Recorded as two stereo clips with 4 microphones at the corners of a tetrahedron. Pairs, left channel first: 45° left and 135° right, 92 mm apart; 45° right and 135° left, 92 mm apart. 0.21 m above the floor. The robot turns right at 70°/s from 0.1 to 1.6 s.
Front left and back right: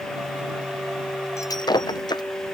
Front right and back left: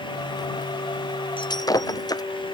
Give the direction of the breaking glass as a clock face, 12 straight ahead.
12 o'clock.